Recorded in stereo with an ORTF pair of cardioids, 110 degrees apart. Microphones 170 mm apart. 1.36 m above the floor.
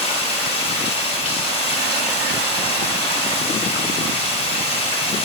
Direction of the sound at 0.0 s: 35° left.